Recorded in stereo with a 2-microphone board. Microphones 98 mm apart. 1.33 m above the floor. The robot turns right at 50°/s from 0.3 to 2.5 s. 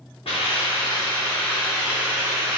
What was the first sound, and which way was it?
A hiss, 105° left.